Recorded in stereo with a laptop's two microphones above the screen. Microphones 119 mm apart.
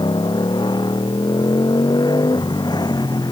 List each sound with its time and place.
0.0 s a motorcycle: 40° left (ahead or behind); by 3.3 s 35° left (ahead or behind)